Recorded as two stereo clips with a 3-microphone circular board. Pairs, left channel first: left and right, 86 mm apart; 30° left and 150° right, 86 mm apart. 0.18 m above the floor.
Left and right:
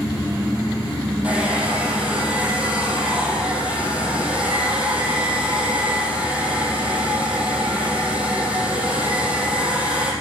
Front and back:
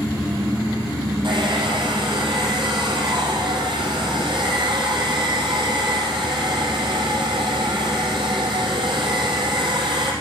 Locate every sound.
1.2 s a hair dryer: 165° right, 4.5 m